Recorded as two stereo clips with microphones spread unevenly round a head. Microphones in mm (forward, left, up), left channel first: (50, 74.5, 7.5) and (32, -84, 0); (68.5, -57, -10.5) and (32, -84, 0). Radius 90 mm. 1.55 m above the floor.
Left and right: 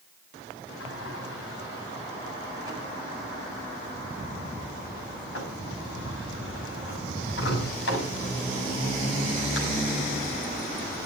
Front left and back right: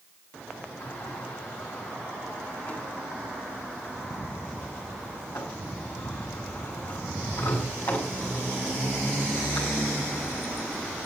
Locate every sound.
0.8 s a sliding door: 105° left, 7 m